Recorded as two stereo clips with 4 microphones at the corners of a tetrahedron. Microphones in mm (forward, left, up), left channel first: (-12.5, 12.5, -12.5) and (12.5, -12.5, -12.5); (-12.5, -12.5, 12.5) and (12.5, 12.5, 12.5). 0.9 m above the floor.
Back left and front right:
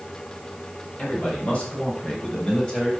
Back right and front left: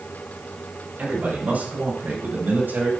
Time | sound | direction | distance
1.0 | a man speaking | 85° left | 6.5 m